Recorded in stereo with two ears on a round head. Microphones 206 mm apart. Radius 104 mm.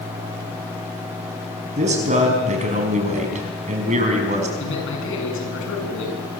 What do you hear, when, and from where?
1.8 s a man speaking: 35° right (ahead or behind), 5 m
4.6 s a man speaking: 60° left (ahead or behind), 7.5 m